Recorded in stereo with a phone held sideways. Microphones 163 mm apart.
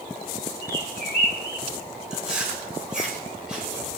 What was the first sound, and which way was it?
A bird, 75° left (ahead or behind).